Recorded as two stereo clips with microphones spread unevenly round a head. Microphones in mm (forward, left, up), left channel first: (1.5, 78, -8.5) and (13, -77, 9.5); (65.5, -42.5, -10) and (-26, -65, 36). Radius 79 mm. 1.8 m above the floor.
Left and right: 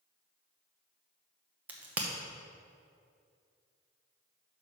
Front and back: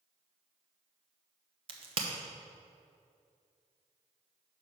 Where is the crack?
165° right, 0.9 m.